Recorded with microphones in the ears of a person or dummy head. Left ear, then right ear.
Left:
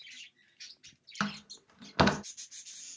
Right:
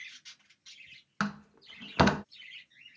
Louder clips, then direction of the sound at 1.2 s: Right 1 dB; 5° left (ahead or behind).